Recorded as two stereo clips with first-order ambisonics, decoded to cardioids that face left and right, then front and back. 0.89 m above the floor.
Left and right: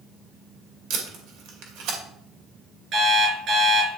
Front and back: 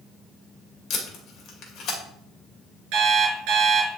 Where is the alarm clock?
145° right, 5 m.